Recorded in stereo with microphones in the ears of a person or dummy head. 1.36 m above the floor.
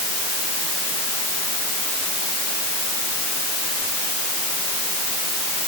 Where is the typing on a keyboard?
No typing on a keyboard in this recording.